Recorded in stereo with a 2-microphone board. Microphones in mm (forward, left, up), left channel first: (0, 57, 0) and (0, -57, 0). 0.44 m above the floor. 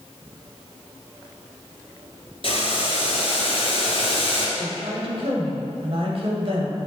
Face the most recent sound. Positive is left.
turn(degrees=-55)  # may be behind; listen again after turning